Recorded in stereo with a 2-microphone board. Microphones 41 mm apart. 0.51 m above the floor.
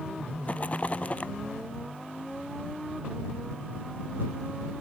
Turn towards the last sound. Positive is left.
turn(degrees=35)  # may be behind; listen again after turning